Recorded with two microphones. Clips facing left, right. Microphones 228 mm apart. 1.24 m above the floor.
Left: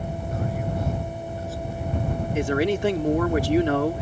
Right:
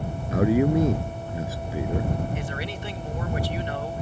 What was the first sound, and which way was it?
A man speaking, 85° right.